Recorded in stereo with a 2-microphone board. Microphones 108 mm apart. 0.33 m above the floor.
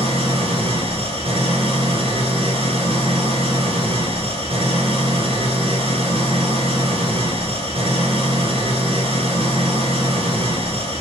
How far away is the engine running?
About 1.1 m.